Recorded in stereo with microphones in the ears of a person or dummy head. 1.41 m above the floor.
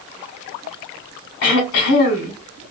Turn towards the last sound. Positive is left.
turn(degrees=55)  # may be behind; listen again after turning